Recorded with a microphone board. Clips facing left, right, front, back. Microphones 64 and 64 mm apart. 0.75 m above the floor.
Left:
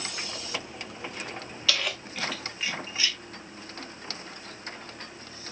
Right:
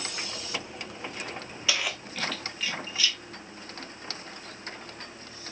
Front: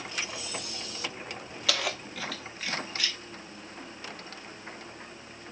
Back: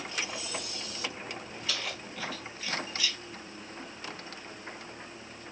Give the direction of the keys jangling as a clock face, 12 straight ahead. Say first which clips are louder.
Even, front 6 dB; 1 o'clock.